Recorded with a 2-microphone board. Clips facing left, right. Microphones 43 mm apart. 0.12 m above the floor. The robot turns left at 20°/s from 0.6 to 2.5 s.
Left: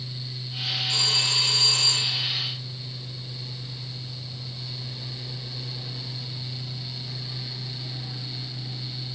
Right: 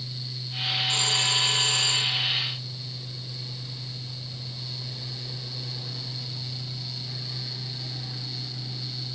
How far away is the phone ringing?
About 3 m.